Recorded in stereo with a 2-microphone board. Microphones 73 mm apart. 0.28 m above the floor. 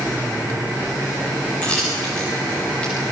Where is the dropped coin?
15° left (ahead or behind), 5.5 m.